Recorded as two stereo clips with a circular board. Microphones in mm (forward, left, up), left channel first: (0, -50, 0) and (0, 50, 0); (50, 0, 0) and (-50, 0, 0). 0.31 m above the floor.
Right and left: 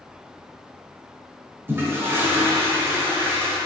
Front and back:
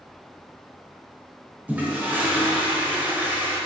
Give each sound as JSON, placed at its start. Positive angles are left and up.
{"t": 1.7, "sound": "a toilet flushing", "azimuth_deg": 125, "distance_m": 0.9}